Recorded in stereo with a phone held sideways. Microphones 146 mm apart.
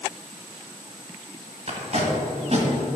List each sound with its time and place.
1.7 s tape being pulled: 50° right (ahead or behind), 1.6 m